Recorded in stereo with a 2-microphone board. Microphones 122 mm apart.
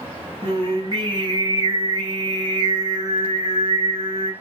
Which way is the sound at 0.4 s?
35° right (ahead or behind).